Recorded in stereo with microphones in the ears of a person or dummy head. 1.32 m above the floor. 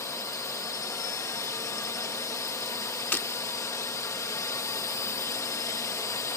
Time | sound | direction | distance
0.0 | a drone | 15° left (ahead or behind) | ?
3.1 | breaking glass | 5° left (ahead or behind) | ?